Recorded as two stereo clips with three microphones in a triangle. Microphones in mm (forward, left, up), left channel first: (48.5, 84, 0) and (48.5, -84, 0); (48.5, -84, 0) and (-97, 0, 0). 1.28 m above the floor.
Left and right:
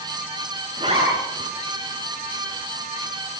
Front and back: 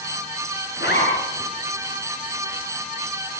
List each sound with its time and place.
0.8 s a zipper: 35° right, 6.5 m